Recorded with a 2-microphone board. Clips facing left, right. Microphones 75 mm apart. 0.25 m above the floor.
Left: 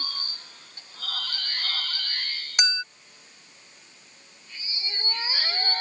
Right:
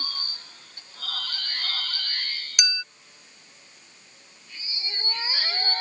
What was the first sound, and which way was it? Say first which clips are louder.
A clink: left 4 dB; 30° left (ahead or behind).